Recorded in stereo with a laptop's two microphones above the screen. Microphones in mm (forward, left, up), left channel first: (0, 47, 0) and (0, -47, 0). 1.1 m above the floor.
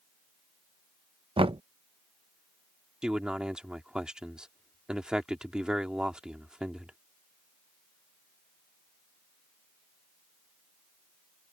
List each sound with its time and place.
1.4 s knocking: 75° right (ahead or behind)
3.0 s a man speaking: 10° right (ahead or behind)